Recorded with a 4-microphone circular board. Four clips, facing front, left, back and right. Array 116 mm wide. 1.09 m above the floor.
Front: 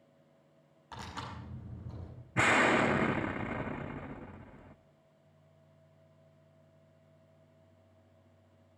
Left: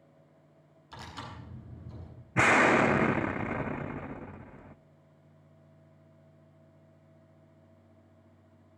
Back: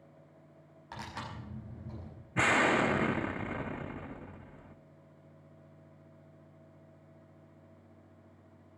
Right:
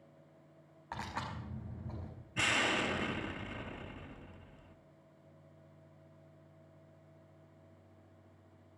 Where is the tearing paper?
100° right, 5.5 m.